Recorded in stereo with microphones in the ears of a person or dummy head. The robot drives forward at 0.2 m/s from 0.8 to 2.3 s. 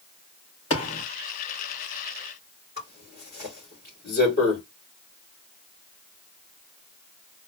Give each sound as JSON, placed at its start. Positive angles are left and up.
{"t": 0.7, "sound": "a thud", "side_deg": 35, "distance_m": 3.0}
{"t": 2.8, "sound": "a zipper", "side_deg": 50, "distance_m": 3.5}